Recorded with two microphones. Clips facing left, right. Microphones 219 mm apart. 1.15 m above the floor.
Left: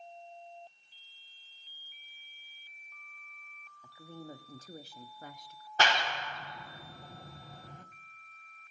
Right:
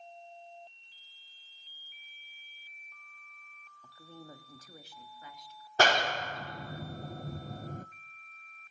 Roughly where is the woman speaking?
Centre.